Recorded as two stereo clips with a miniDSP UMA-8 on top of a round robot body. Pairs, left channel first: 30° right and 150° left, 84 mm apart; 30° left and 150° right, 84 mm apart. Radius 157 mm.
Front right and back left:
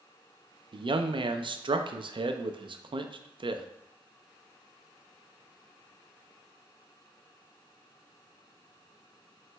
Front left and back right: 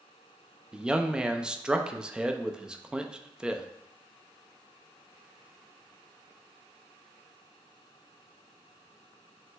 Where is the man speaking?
130° left, 0.5 m.